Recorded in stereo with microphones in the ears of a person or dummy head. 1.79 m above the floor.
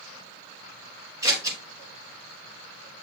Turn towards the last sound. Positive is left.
turn(degrees=-20)  # may be behind; listen again after turning